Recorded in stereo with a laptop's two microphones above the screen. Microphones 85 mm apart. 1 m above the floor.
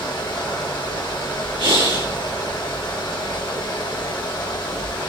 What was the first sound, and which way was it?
A fan, 60° left (ahead or behind).